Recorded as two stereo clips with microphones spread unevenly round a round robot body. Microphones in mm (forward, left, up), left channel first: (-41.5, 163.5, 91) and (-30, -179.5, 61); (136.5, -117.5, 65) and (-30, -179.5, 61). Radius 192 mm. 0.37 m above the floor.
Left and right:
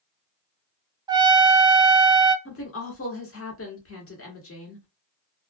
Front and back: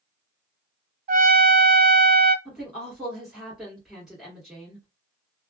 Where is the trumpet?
160° right, 0.5 m.